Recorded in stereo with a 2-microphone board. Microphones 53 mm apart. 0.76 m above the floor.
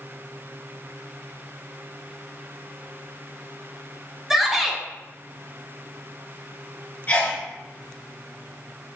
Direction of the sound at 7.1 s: 40° left (ahead or behind).